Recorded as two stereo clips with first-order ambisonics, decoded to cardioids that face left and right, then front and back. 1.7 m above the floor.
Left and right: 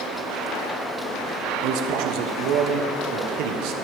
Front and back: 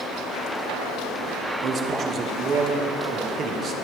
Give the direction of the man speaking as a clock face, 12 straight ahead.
4 o'clock.